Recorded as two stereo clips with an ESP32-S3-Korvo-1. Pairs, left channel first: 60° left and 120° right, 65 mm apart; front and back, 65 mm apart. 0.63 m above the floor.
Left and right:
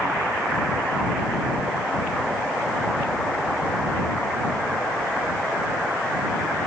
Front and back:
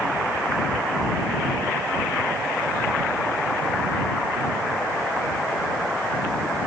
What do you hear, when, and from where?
Only background noise.